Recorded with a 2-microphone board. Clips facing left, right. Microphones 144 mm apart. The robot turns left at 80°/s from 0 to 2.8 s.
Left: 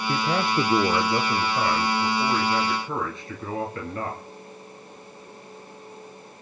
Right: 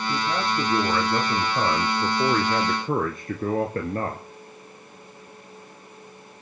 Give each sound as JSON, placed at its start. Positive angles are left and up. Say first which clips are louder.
{"t": 0.1, "sound": "a man speaking", "louder": "left 3 dB", "azimuth_deg": 100, "distance_m": 2.0}